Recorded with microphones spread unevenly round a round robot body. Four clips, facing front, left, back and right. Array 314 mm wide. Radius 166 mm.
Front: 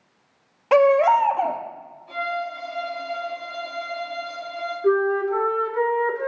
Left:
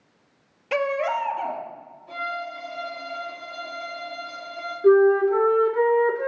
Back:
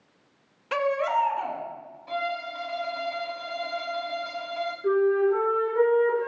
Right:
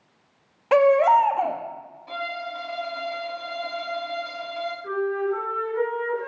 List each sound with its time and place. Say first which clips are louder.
0.7 s a baby crying: right 8 dB, front 10 dB; 35° right, 0.9 m
2.1 s a violin: even, front 3 dB; 140° right, 3.5 m
4.8 s a flute: left 11 dB, front 1 dB; 75° left, 1.4 m